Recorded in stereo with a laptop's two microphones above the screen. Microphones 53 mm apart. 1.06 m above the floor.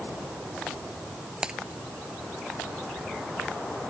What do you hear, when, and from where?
1.4 s breaking glass: 20° right (ahead or behind)